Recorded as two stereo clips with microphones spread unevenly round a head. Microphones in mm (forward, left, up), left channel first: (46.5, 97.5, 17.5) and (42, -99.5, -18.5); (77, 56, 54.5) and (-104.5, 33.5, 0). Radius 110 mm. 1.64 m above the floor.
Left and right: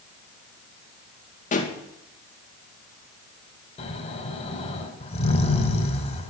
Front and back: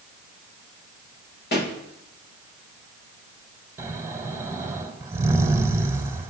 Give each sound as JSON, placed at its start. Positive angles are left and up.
{"t": 1.5, "sound": "a pop", "azimuth_deg": 35, "distance_m": 2.0}
{"t": 3.8, "sound": "snoring", "azimuth_deg": 95, "distance_m": 1.8}